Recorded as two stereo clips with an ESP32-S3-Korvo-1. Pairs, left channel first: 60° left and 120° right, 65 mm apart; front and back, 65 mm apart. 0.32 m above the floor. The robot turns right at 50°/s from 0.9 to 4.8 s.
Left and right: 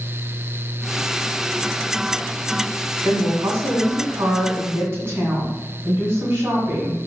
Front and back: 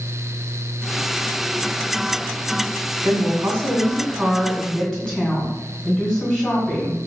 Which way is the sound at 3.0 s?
165° right.